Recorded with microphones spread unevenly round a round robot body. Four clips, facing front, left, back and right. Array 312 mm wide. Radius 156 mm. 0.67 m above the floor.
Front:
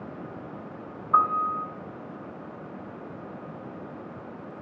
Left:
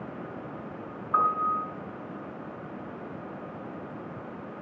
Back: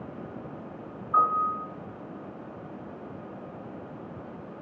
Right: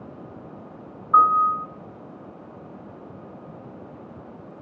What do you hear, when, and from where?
1.1 s a piano: 20° right, 7 m